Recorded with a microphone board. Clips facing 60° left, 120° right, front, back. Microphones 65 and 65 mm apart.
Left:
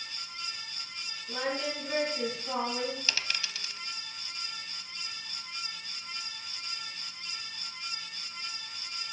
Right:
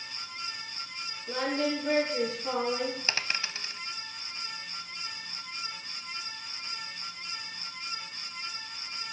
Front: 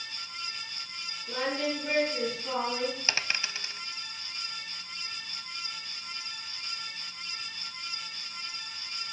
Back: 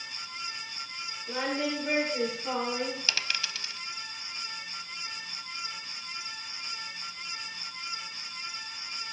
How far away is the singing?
About 7 m.